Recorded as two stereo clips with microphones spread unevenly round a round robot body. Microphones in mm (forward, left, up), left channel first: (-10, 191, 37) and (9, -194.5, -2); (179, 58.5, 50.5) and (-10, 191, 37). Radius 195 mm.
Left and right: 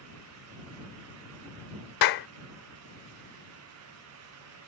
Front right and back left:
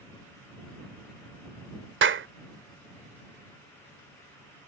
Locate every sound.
2.0 s a clap: 125° left